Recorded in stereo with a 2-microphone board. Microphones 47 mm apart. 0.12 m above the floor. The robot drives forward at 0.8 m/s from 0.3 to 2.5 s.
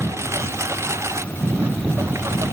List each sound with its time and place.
0.0 s a lawn mower: 85° right; by 2.5 s 80° right